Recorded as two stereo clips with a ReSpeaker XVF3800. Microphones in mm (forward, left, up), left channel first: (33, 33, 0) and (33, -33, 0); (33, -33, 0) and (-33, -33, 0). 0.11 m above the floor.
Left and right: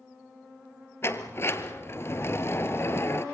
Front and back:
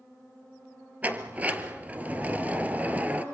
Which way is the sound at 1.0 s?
120° left.